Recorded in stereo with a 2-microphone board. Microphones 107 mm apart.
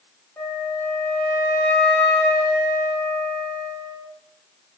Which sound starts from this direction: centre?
A flute, at 0.4 s.